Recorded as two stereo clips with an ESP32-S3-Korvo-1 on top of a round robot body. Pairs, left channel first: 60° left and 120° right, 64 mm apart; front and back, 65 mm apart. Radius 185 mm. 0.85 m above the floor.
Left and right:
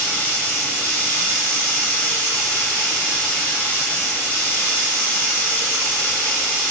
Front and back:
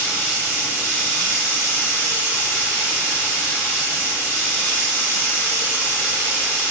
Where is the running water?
125° left, 3 m.